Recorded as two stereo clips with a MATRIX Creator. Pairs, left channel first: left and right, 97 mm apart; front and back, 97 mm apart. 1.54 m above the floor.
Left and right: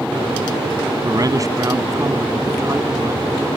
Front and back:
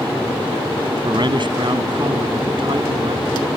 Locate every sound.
1.0 s a man speaking: 140° right; by 3.5 s 150° right